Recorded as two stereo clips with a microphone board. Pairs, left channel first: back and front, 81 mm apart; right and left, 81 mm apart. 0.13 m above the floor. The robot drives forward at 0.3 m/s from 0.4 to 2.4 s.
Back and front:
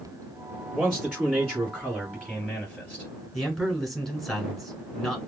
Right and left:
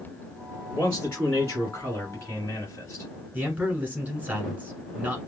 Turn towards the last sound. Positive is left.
turn(degrees=105)